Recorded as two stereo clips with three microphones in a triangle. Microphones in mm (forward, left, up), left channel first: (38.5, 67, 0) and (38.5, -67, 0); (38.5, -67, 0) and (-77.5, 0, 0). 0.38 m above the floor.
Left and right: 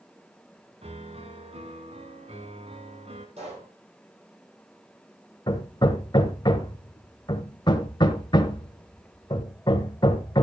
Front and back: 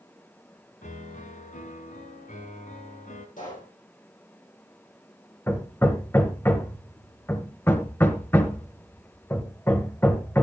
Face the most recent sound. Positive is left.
turn(degrees=40)